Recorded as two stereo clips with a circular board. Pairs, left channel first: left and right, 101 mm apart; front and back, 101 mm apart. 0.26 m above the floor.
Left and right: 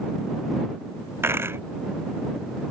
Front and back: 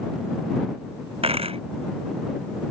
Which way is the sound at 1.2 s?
155° right.